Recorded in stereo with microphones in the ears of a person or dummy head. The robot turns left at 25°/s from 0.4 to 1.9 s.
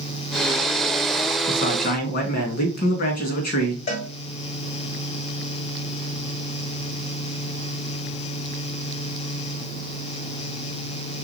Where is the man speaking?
40° left (ahead or behind), 2.5 m; by 3.8 s 50° left (ahead or behind), 2.5 m.